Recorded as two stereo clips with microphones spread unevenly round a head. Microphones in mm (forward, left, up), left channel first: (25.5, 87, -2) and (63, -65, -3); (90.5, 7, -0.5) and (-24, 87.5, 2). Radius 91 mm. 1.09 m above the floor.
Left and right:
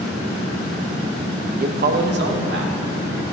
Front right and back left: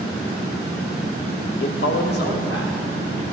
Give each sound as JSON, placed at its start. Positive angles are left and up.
{"t": 1.6, "sound": "a man speaking", "azimuth_deg": -40, "distance_m": 0.7}